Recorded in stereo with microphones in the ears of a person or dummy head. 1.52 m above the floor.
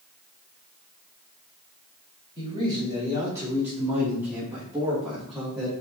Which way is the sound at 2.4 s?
25° right (ahead or behind).